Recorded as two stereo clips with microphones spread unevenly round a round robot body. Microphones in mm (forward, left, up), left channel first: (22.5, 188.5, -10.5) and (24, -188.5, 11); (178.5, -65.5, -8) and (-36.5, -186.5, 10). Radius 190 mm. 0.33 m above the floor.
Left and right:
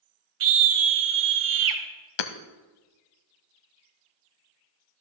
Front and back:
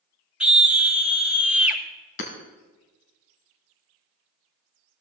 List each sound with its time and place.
0.4 s a scream: 65° right, 2.0 m
2.2 s hammering: 80° left, 1.0 m